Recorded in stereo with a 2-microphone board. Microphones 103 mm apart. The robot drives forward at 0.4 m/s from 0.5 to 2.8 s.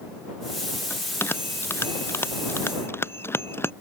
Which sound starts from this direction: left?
A bell, at 0.9 s.